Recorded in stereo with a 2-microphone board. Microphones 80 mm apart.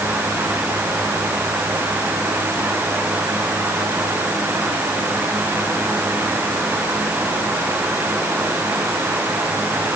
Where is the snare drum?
No snare drum in this recording.